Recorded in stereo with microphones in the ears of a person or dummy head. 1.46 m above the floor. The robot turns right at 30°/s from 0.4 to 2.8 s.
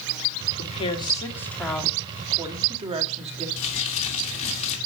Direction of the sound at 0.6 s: 145° left.